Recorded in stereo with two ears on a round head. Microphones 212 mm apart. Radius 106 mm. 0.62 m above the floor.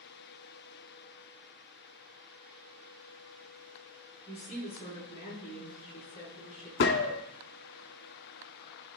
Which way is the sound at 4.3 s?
30° left (ahead or behind).